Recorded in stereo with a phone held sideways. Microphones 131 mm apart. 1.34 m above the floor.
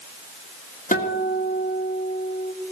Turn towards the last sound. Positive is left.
turn(degrees=80)